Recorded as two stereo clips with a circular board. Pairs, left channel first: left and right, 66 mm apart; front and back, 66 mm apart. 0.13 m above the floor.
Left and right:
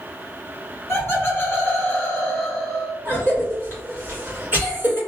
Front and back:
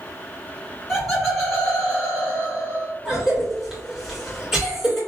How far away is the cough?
About 1.9 m.